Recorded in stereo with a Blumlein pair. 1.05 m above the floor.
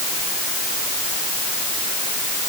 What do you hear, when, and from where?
Only background noise.